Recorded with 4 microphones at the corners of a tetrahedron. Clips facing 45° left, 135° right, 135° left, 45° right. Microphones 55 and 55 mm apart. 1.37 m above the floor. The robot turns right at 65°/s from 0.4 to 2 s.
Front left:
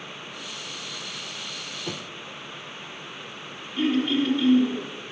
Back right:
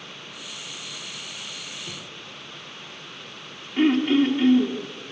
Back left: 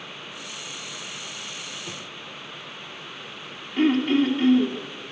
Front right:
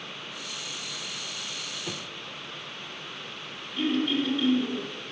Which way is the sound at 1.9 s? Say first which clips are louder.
Front left 4 dB, even; 25° left.